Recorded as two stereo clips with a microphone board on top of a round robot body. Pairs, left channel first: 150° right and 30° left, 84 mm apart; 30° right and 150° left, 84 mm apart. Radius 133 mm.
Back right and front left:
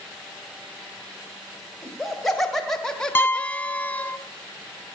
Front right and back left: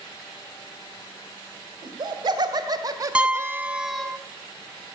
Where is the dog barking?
I don't hear a dog barking.